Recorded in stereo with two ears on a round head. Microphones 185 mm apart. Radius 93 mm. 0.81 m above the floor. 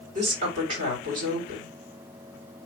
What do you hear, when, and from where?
0.1 s a woman speaking: 35° right (ahead or behind), 2.5 m